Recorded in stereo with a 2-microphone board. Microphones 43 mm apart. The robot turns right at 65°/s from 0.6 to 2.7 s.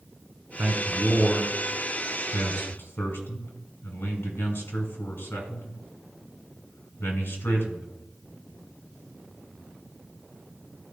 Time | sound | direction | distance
0.6 | a man speaking | 30° right (ahead or behind) | 2 m